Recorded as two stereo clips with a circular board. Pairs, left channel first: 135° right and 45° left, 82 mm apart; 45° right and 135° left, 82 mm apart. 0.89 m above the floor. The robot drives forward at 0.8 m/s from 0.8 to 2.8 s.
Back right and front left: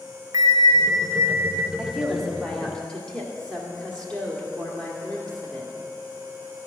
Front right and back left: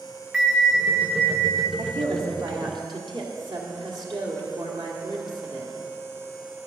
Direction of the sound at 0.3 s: 55° left.